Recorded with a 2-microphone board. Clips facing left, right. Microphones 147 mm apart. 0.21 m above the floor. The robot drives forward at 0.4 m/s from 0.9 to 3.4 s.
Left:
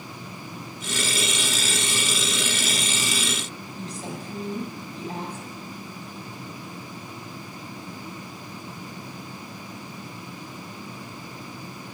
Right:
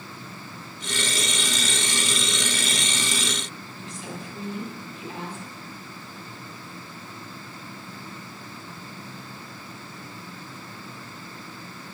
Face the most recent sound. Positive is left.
turn(degrees=40)  # may be behind; listen again after turning